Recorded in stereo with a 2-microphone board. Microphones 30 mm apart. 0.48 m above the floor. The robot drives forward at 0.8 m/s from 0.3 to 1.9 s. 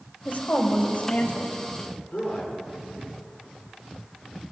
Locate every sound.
0.2 s a woman speaking: 65° left (ahead or behind), 2 m; by 1.6 s 55° left (ahead or behind), 2.5 m
2.1 s a man speaking: 45° left (ahead or behind), 7 m